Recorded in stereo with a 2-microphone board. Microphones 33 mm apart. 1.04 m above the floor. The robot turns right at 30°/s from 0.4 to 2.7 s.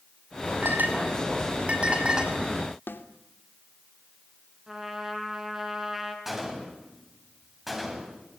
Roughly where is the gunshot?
Centre.